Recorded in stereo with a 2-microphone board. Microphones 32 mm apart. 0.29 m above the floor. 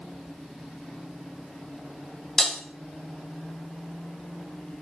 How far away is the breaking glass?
About 0.6 m.